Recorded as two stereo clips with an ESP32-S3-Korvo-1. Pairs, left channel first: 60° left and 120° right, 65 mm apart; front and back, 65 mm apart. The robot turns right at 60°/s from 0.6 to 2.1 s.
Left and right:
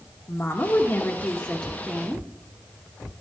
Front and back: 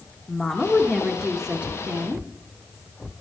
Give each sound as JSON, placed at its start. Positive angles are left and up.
{"t": 0.3, "sound": "a woman speaking", "azimuth_deg": 60, "distance_m": 1.0}